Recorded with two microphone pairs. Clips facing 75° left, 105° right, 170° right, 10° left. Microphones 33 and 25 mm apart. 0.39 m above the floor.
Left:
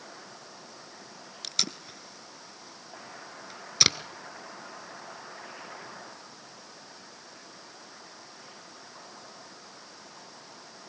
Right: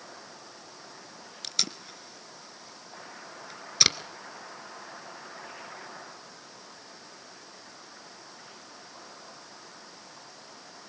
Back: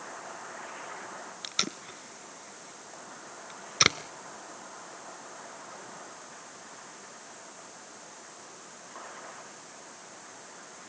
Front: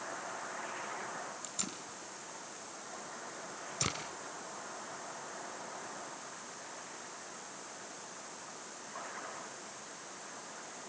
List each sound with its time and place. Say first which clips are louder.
1.4 s tape being pulled: even, back 10 dB; 160° left, 0.9 m